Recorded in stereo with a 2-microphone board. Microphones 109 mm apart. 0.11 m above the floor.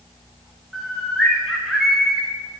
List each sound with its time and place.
0.7 s a bird: centre (ahead or behind), 2.5 m